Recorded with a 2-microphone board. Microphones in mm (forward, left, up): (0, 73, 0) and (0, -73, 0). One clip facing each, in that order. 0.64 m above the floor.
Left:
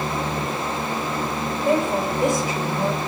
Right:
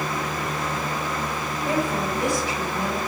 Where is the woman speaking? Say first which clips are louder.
Left 4 dB; 55° left (ahead or behind), 5 m.